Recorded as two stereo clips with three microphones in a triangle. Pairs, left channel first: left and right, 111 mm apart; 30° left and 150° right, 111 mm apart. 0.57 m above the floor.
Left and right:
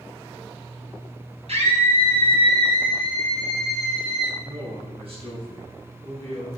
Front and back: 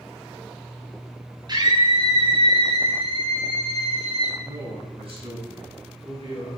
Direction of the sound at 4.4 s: 120° right.